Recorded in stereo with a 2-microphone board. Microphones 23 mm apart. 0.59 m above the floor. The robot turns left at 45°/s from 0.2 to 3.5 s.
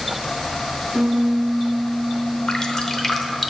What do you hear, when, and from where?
0.9 s a piano: 140° right, 0.9 m; by 3.3 s 115° left, 0.9 m
2.5 s dripping: 40° left (ahead or behind), 0.7 m; by 3.5 s 5° right (ahead or behind), 0.7 m